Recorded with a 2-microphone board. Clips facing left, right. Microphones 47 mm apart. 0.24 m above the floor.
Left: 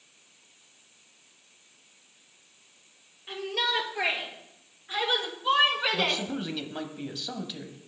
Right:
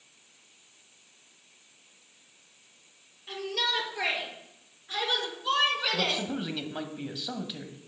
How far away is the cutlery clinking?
No cutlery clinking in this recording.